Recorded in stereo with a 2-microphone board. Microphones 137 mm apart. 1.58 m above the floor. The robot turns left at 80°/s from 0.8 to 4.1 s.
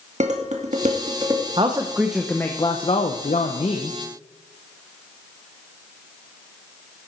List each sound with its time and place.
0.2 s dishes clattering: 65° right (ahead or behind), 2.0 m; by 1.5 s 15° right (ahead or behind), 2.0 m
1.6 s a man speaking: 130° right, 0.9 m; by 4.0 s 35° left, 0.9 m